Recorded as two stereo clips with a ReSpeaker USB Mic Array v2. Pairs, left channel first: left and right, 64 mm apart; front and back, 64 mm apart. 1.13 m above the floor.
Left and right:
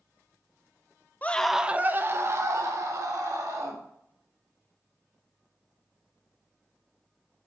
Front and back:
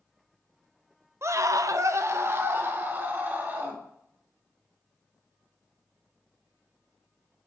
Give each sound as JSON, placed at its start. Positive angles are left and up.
{"t": 1.2, "sound": "a scream", "azimuth_deg": 150, "distance_m": 0.6}